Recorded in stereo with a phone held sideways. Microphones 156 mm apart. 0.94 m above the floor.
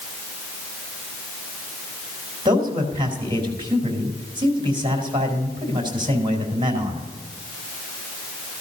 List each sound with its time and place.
2.5 s a man speaking: 30° right (ahead or behind), 3.5 m